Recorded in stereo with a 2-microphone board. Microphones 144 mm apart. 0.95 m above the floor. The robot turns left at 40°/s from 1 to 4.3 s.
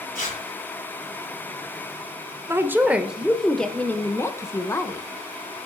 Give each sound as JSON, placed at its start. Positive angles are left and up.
{"t": 0.1, "sound": "tearing paper", "side_deg": 75, "distance_m": 2.5}
{"t": 2.5, "sound": "a woman speaking", "azimuth_deg": -145, "distance_m": 0.6}